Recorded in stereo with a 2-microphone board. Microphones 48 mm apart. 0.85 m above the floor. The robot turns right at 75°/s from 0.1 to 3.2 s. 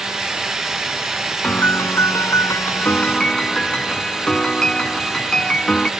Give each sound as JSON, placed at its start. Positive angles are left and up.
{"t": 1.4, "sound": "a piano", "azimuth_deg": 30}